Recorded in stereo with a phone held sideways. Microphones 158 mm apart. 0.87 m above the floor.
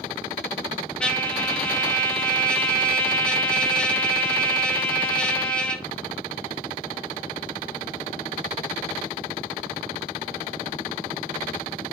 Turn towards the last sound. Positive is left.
turn(degrees=5)  # may be behind; listen again after turning